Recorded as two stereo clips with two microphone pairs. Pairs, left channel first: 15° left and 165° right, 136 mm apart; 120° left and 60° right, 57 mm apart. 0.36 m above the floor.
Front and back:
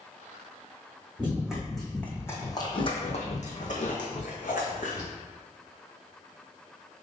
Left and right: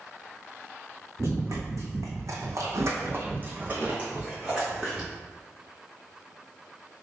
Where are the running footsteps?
85° right, 1.2 m; by 5.1 s 30° left, 1.6 m.